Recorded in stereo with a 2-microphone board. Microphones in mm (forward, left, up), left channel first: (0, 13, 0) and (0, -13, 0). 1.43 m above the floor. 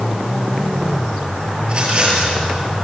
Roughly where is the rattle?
Right.